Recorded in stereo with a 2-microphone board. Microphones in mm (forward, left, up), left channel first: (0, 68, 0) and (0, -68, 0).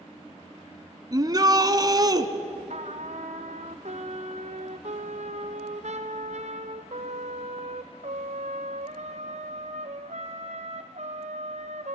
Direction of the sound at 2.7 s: 65° right (ahead or behind).